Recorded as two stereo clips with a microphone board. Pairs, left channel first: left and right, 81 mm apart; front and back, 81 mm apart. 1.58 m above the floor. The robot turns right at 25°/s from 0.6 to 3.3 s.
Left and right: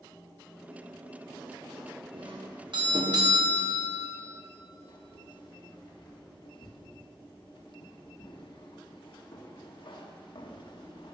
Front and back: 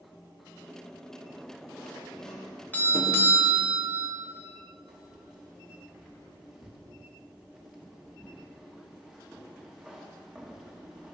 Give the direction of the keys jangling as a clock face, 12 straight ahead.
9 o'clock.